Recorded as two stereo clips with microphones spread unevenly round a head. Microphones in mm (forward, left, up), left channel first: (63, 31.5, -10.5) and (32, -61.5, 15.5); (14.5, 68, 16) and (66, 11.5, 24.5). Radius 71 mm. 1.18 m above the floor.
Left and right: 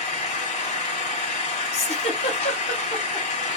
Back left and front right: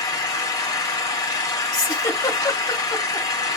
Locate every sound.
0.0 s an engine running: 90° left, 1.9 m
1.7 s a giggle: 85° left, 2.5 m